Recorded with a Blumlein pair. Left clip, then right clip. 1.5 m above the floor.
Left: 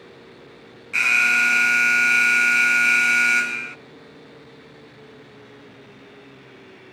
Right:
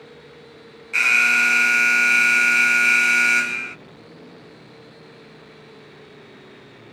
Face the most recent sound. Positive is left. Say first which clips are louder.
# right 1 dB
turn(degrees=0)